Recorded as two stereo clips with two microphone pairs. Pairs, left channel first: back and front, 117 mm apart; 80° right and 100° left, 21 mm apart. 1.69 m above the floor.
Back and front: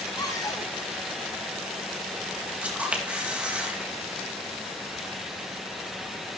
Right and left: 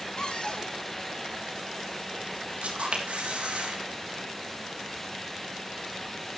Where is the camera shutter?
80° left, 3 m.